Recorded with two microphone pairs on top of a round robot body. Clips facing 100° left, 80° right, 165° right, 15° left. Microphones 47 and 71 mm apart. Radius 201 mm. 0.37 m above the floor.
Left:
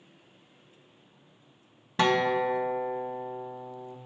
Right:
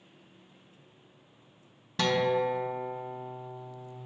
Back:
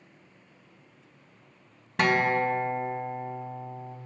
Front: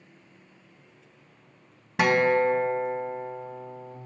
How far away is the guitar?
About 1.0 m.